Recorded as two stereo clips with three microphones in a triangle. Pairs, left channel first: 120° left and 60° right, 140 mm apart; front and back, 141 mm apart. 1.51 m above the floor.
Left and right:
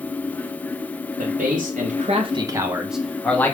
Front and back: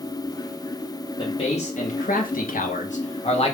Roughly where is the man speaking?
Ahead right.